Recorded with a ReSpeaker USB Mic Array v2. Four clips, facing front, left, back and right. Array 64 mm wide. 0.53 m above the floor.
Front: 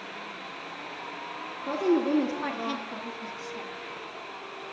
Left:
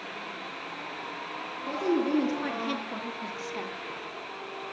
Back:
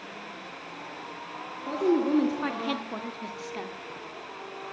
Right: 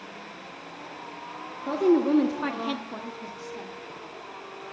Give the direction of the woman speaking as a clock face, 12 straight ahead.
3 o'clock.